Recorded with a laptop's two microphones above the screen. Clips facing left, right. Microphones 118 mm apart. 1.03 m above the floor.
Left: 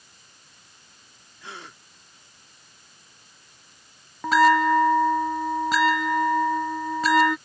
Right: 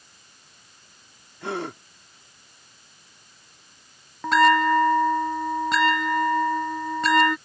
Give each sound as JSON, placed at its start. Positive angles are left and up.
{"t": 1.4, "sound": "a gasp", "side_deg": -70}
{"t": 4.2, "sound": "a bell", "side_deg": 0}